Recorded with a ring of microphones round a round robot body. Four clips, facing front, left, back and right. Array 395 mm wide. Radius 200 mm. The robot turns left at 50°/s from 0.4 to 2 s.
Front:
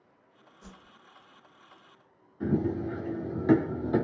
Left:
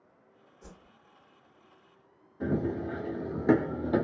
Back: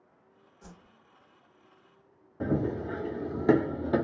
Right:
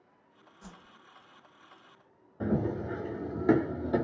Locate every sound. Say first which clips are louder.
0.6 s a whoosh: right 1 dB, front 1 dB; 90° right, 1.6 m; by 0.9 s 105° right, 1.6 m
2.4 s running footsteps: even, front 1 dB; 150° right, 1.3 m; by 4.0 s 150° left, 1.0 m